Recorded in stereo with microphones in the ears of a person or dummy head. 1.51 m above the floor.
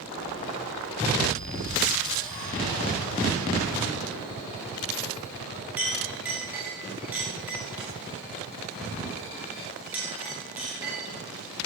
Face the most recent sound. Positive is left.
turn(degrees=-10)  # may be behind; listen again after turning